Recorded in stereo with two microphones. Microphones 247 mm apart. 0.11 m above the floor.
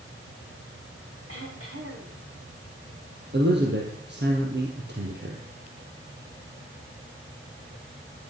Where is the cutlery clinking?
No cutlery clinking in this recording.